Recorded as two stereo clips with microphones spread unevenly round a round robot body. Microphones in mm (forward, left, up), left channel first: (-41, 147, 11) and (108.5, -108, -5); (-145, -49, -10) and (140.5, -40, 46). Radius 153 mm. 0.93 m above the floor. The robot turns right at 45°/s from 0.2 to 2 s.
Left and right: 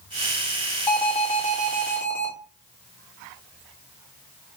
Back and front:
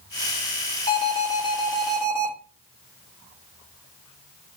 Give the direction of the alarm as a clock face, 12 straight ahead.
11 o'clock.